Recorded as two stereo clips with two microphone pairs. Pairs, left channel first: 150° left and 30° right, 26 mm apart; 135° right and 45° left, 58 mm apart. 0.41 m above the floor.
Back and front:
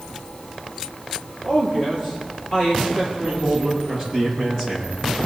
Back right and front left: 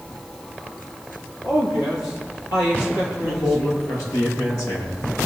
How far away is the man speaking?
About 7.5 m.